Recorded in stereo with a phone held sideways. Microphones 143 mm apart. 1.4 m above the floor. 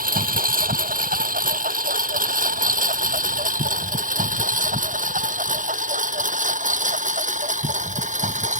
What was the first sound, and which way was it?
A lawn mower, 80° right.